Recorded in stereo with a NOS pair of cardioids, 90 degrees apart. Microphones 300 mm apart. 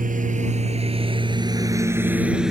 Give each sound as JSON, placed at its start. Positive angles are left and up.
{"t": 0.0, "sound": "a lawn mower", "azimuth_deg": -25}